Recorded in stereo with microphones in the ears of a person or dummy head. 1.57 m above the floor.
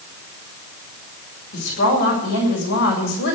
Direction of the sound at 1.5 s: 60° left (ahead or behind).